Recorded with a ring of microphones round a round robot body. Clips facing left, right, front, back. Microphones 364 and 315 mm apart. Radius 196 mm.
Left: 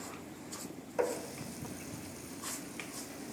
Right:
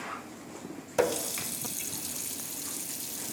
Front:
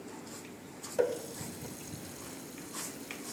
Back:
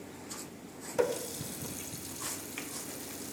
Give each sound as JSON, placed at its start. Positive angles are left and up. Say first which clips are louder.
{"t": 1.0, "sound": "a running tap", "louder": "right 6 dB, even", "azimuth_deg": -105, "distance_m": 0.9}